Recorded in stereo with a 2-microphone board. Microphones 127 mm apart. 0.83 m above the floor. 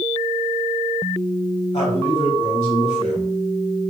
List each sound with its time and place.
1.7 s a man speaking: 65° left (ahead or behind), 2.5 m